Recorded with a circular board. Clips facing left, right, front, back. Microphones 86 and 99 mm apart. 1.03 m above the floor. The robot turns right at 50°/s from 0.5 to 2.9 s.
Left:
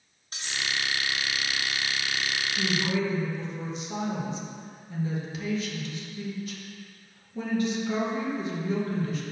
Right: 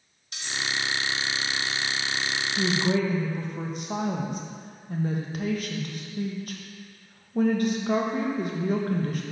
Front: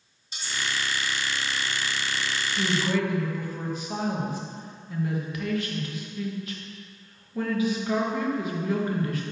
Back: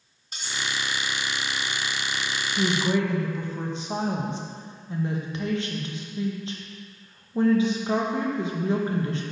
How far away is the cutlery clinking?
About 1.4 m.